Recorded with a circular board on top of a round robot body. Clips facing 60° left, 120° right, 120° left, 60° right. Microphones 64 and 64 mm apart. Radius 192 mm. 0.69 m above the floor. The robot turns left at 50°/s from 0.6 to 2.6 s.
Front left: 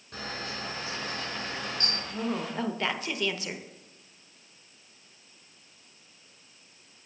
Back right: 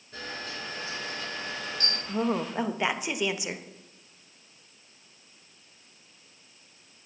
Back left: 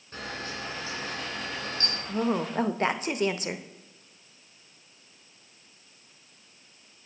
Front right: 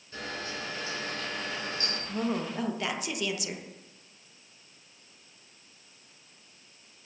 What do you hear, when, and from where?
0.1 s a camera shutter: 70° left, 5 m; by 2.0 s straight ahead, 5 m
2.1 s a woman speaking: 165° right, 0.9 m; by 3.6 s 165° left, 0.9 m